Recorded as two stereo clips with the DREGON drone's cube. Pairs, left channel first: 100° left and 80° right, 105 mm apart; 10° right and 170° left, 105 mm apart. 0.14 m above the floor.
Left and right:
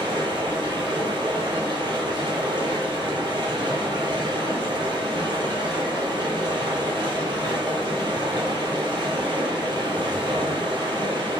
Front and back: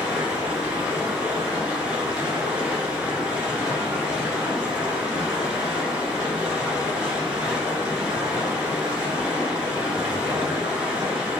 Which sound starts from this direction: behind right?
Running water, at 0.0 s.